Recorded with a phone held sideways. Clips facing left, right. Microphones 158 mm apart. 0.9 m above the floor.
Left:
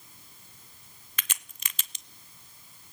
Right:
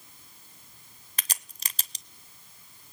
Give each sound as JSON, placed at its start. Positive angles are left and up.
{"t": 1.2, "sound": "a crack", "side_deg": -35, "distance_m": 0.7}